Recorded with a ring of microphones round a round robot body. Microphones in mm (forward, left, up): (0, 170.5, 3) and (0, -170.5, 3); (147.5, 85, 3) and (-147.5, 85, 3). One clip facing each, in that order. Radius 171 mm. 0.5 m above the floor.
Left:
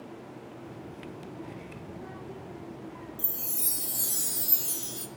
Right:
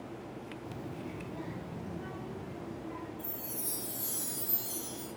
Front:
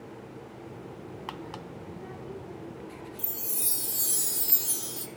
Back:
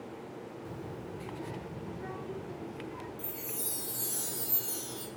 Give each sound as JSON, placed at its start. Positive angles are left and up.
{"t": 0.7, "sound": "a child speaking", "azimuth_deg": -165, "distance_m": 0.6}
{"t": 3.2, "sound": "a chime", "azimuth_deg": 50, "distance_m": 0.9}